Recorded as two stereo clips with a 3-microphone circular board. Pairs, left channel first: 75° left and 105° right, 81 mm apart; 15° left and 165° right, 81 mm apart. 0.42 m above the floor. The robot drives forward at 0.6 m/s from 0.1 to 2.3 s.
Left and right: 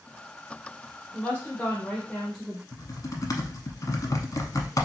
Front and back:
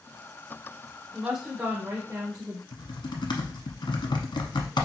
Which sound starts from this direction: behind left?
A woman speaking, at 1.1 s.